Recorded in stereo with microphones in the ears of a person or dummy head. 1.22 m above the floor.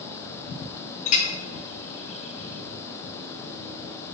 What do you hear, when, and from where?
1.1 s a clink: 40° left (ahead or behind), 0.7 m